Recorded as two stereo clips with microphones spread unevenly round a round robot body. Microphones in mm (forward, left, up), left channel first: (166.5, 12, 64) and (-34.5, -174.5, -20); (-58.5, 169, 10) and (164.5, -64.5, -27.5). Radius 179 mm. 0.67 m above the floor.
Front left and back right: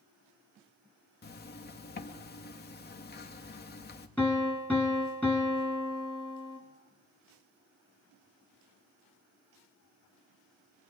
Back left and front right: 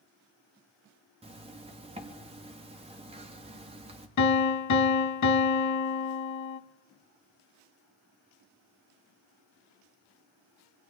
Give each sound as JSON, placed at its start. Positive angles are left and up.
{"t": 1.2, "sound": "a zipper", "azimuth_deg": -10, "distance_m": 1.0}
{"t": 4.2, "sound": "a piano", "azimuth_deg": 120, "distance_m": 0.9}